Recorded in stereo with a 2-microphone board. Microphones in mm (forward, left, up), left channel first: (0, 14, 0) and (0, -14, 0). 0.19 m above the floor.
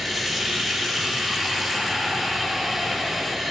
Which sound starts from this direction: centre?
Running water, at 0.0 s.